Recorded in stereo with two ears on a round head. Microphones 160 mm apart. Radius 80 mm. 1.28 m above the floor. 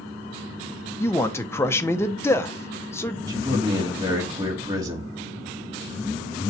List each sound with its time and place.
1.0 s a man speaking: 15° left (ahead or behind), 0.6 m
3.3 s a man speaking: 20° right (ahead or behind), 2.5 m